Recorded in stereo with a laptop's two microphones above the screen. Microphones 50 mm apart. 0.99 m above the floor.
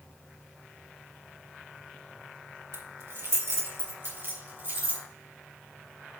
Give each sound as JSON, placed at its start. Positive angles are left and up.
{"t": 2.7, "sound": "keys jangling", "side_deg": -80, "distance_m": 2.0}